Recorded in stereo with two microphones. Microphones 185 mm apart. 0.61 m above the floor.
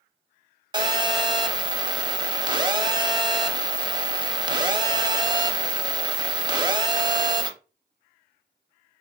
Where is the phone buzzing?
25° right (ahead or behind), 0.6 m.